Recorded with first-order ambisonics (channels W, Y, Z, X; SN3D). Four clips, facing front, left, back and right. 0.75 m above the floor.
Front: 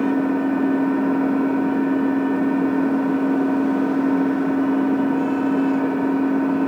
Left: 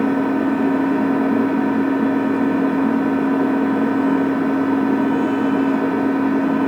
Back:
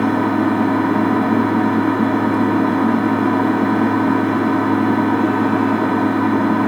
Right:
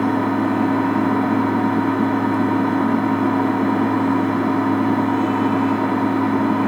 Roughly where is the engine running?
Behind right.